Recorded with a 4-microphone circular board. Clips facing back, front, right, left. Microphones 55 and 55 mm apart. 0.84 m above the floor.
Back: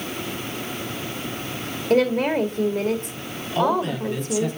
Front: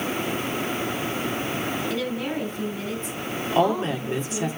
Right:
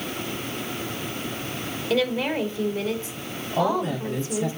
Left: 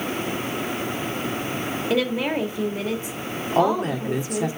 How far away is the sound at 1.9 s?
About 2.0 m.